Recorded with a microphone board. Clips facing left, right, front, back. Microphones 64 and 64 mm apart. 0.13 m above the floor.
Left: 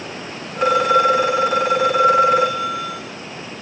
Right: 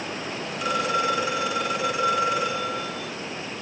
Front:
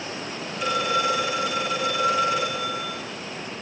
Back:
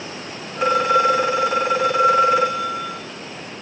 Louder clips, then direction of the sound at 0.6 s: Left 10 dB, back 7 dB; 135° left.